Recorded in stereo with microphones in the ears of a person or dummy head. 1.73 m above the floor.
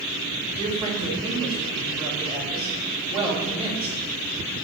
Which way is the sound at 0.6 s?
35° right (ahead or behind).